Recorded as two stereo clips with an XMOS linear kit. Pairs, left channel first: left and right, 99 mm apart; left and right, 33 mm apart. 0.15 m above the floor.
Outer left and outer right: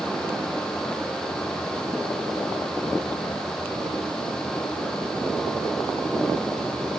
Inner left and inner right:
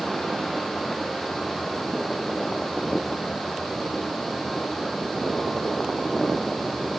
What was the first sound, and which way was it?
Only background noise.